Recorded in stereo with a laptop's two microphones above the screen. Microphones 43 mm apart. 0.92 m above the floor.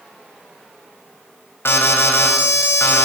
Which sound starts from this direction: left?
An alarm, at 1.6 s.